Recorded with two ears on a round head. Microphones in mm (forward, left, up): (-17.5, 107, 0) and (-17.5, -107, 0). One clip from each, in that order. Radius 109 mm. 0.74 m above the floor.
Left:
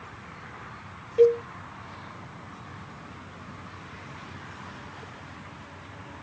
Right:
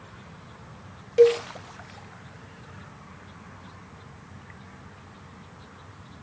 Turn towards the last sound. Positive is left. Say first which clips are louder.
# right 2 dB
turn(degrees=-40)  # may be behind; listen again after turning